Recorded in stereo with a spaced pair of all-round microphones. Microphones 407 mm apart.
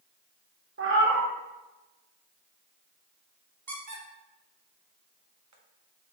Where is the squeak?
45° right (ahead or behind), 0.6 m.